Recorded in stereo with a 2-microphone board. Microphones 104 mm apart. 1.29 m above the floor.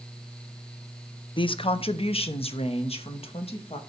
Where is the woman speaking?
50° left (ahead or behind), 0.5 m; by 3.8 s 65° left (ahead or behind), 1.7 m.